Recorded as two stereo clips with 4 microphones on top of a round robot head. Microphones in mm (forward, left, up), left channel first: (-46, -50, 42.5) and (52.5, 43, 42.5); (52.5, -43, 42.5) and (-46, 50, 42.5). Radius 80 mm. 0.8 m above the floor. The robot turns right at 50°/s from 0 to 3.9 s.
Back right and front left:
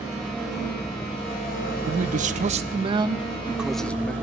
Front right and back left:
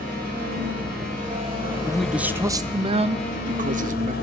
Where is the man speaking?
40° left, 0.7 m; by 4.1 s 140° left, 0.7 m.